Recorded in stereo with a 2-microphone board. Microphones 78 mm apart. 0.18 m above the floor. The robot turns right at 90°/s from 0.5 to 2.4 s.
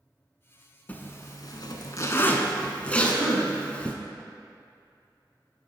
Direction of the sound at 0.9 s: 20° left (ahead or behind).